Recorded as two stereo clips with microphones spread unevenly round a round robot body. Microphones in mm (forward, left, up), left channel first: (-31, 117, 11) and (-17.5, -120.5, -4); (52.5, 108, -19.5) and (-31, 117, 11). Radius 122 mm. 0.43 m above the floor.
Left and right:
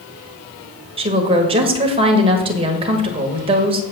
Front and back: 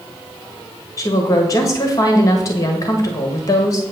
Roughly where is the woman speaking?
Ahead right.